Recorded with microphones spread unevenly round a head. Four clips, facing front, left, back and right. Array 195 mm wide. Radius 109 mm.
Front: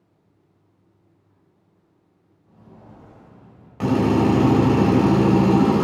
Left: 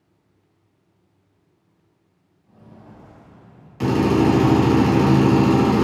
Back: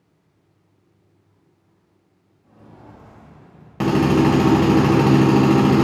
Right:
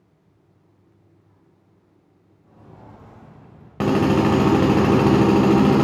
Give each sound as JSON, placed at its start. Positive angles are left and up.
{"t": 2.4, "sound": "footsteps", "azimuth_deg": -130, "distance_m": 4.0}
{"t": 3.8, "sound": "a drill", "azimuth_deg": -125, "distance_m": 3.0}